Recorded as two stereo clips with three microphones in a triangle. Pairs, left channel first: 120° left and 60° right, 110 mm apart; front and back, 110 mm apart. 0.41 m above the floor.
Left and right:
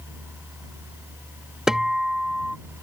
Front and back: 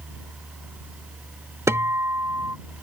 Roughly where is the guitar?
Behind right.